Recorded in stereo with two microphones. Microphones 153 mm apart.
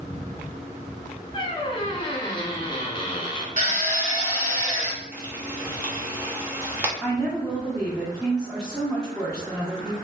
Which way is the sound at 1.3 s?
30° left (ahead or behind).